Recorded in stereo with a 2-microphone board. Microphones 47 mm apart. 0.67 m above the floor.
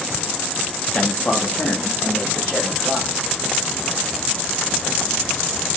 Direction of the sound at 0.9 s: 20° left (ahead or behind).